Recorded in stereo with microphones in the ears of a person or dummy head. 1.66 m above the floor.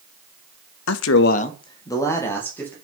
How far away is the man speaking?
About 0.6 m.